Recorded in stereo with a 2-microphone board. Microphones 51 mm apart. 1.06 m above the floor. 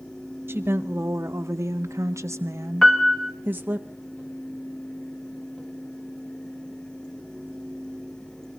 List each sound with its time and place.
0.5 s a woman speaking: 50° right (ahead or behind), 1.1 m; by 3.8 s 30° right (ahead or behind), 1.2 m
2.8 s a piano: 10° left (ahead or behind), 1.5 m